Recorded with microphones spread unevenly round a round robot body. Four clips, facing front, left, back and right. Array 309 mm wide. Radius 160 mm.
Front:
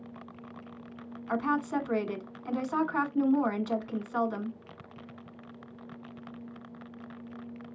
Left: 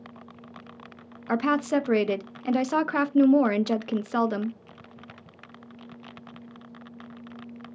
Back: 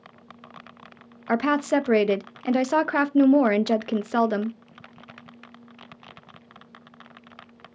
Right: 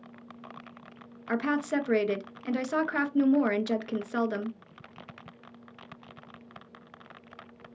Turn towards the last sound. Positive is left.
turn(degrees=155)